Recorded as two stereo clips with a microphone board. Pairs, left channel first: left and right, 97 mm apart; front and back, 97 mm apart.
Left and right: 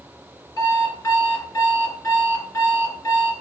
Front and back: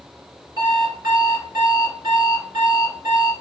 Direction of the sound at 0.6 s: 150° left.